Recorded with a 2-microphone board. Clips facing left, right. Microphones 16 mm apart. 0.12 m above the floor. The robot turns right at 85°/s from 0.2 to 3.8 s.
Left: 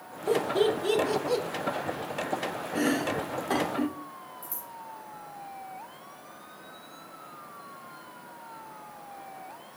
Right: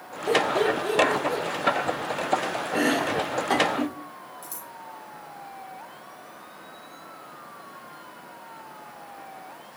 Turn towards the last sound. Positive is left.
turn(degrees=-40)  # may be behind; listen again after turning